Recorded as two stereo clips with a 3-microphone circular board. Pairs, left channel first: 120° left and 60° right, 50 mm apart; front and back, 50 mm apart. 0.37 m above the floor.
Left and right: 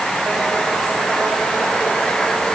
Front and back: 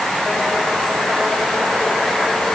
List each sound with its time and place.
Only background noise.